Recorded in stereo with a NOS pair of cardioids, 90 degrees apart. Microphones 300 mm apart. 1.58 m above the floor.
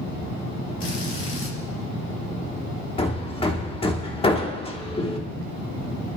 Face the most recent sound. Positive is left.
turn(degrees=20)